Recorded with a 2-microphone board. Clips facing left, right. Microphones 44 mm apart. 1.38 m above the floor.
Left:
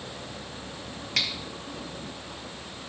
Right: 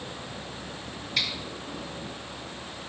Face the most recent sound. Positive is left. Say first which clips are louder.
# even
turn(degrees=70)  # may be behind; listen again after turning